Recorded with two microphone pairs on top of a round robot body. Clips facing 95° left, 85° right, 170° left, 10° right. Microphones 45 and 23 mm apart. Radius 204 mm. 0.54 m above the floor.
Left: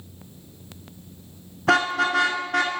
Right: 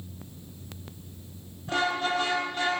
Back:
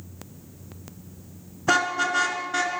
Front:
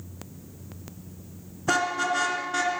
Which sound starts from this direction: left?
A car horn, at 1.7 s.